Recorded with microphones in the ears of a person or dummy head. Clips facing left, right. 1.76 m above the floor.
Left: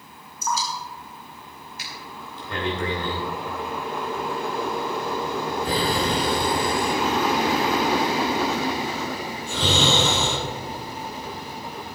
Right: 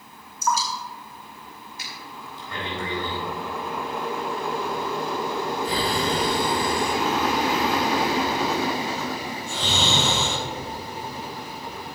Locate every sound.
0.4 s dripping: 55° right (ahead or behind), 2.5 m
1.8 s breathing: 60° left (ahead or behind), 3.5 m